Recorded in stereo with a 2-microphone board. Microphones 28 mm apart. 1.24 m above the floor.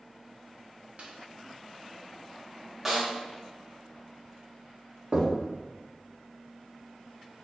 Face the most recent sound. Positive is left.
turn(degrees=-40)  # may be behind; listen again after turning